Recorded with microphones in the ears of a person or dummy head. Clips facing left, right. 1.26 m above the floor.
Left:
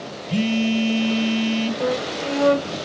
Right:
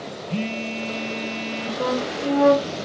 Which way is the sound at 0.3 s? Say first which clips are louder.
Left 8 dB; 15° left (ahead or behind).